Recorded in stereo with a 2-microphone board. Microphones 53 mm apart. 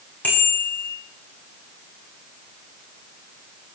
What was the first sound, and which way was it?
A bicycle bell, 25° left (ahead or behind).